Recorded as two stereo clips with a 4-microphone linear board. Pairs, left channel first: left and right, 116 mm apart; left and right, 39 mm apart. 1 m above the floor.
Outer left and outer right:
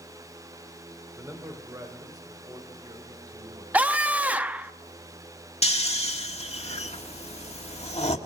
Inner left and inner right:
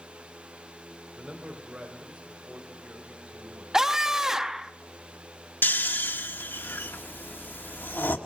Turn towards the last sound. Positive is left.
turn(degrees=65)  # may be behind; listen again after turning